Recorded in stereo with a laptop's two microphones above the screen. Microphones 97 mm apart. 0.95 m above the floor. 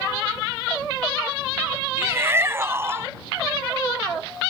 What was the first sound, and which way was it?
A shout, 25° right (ahead or behind).